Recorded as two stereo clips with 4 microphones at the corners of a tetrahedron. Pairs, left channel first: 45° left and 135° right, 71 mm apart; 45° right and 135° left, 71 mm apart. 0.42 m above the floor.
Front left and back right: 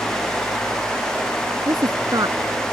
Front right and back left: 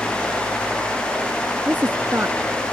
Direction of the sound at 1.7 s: 160° right.